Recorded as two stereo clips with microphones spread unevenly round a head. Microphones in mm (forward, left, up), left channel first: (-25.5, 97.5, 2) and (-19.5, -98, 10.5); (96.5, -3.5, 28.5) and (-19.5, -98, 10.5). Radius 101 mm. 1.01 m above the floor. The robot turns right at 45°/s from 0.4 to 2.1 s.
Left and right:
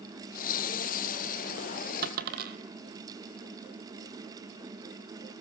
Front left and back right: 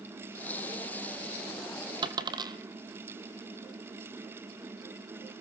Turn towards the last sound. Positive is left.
turn(degrees=-80)